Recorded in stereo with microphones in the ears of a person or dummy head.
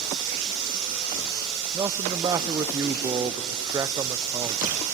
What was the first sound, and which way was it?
Running water, 70° right (ahead or behind).